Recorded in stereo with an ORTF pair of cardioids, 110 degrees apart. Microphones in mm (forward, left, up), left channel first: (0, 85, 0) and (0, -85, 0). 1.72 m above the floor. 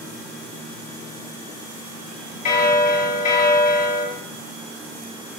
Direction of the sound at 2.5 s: 45° left.